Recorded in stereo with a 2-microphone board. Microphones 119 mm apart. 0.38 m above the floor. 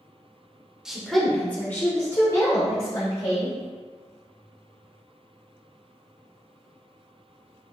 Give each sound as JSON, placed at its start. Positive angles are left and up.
{"t": 0.8, "sound": "a woman speaking", "side_deg": -5, "distance_m": 0.8}